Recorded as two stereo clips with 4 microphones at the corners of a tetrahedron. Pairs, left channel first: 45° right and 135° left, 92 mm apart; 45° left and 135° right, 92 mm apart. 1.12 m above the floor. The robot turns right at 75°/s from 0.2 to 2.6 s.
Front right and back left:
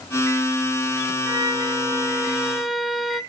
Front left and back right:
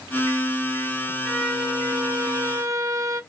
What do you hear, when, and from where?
1.2 s a violin: 120° left, 0.7 m; by 3.2 s 140° right, 0.7 m